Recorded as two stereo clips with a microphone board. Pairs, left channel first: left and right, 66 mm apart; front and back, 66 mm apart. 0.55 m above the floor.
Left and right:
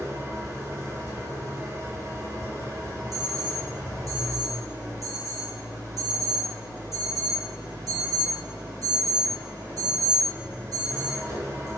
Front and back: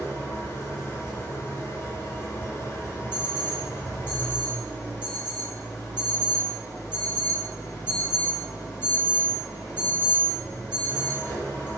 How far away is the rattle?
No rattle in this recording.